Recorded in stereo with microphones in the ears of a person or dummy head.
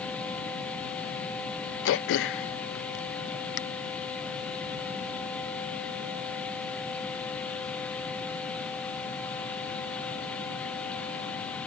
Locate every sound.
1.9 s throat clearing: 65° left (ahead or behind)